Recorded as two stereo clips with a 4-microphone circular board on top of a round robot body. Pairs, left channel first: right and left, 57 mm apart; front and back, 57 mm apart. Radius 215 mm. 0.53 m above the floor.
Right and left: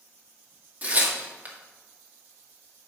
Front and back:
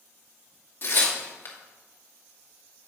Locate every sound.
0.8 s tearing paper: 35° left, 2.5 m